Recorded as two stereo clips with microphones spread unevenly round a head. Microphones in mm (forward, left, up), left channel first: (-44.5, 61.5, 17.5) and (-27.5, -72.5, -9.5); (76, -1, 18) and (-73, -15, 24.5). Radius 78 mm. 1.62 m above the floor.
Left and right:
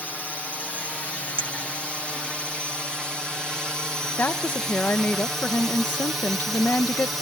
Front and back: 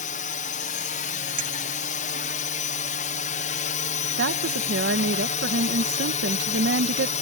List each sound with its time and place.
0.0 s a drone: 10° left; by 7.2 s 5° right
1.4 s a clink: 140° right
4.2 s a woman speaking: 175° left